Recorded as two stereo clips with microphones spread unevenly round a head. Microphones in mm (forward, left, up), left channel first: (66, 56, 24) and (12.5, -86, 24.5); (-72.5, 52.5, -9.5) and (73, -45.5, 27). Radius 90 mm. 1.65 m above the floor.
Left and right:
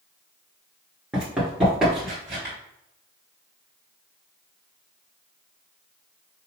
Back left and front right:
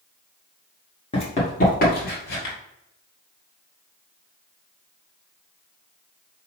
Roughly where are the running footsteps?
Behind.